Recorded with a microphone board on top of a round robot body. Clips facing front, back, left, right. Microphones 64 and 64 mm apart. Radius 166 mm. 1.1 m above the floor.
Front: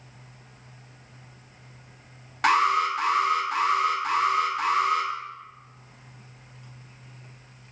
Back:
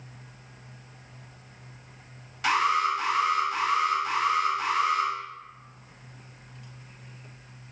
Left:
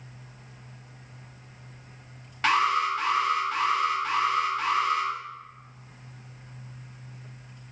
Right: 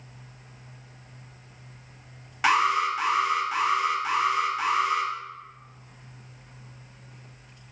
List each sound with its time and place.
2.4 s an alarm: 15° right, 0.7 m